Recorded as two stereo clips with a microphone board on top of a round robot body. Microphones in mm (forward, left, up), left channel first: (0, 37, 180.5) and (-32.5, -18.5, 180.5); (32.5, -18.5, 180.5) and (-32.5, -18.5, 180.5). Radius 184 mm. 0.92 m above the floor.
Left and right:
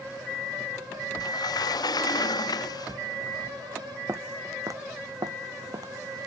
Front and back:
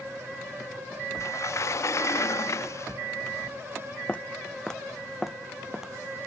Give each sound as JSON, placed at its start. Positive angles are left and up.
{"t": 1.2, "sound": "a sliding door", "azimuth_deg": 45}
{"t": 4.1, "sound": "footsteps", "azimuth_deg": -75}